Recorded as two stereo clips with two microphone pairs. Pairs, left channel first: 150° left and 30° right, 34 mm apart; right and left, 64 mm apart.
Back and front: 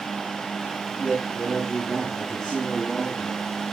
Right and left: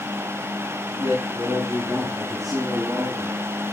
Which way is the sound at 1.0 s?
65° left.